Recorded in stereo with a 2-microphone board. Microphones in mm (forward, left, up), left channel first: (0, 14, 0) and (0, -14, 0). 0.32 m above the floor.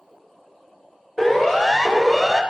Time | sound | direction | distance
1.2 | a siren | 20° right (ahead or behind) | 4.5 m